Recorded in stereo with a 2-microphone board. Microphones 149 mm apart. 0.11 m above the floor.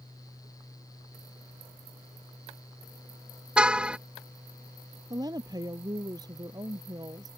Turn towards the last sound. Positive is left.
turn(degrees=-25)  # may be behind; listen again after turning